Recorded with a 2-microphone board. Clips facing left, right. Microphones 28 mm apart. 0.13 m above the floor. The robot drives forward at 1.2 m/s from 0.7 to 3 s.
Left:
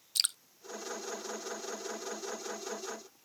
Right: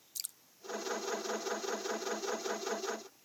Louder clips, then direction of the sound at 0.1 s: Left 14 dB; 65° left (ahead or behind).